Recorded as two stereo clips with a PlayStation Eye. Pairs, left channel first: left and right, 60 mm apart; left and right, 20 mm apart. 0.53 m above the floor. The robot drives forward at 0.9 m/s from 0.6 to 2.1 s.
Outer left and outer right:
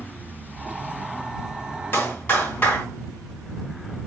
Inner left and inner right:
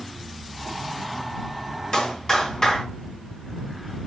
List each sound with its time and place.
1.9 s a clap: 35° left (ahead or behind), 4 m